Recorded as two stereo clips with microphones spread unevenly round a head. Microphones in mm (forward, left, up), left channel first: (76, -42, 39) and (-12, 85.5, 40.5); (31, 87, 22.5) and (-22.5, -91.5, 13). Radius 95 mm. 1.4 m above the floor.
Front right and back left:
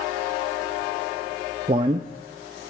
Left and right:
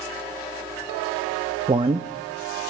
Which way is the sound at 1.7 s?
175° right.